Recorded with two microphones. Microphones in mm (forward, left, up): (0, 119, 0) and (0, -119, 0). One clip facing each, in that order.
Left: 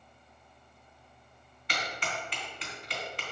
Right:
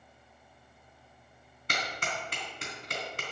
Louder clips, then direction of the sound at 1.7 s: Even; 45° right (ahead or behind).